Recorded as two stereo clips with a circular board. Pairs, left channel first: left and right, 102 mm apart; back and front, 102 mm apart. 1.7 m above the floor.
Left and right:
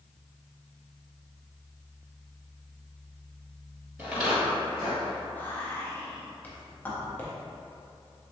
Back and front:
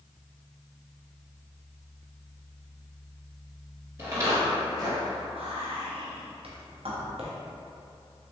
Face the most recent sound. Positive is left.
turn(degrees=15)